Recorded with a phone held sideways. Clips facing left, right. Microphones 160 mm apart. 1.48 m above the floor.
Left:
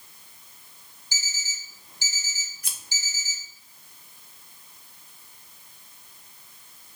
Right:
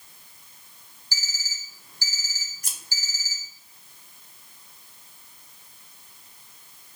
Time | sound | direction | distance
1.1 | an alarm clock | 20° left (ahead or behind) | 0.7 m
2.6 | scissors | 45° right (ahead or behind) | 0.6 m